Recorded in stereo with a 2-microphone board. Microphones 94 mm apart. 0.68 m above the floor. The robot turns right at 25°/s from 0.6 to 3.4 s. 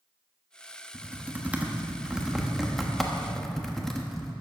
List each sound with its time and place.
0.9 s typing on a keyboard: 20° right (ahead or behind), 1.1 m; by 4.3 s 5° left (ahead or behind), 1.1 m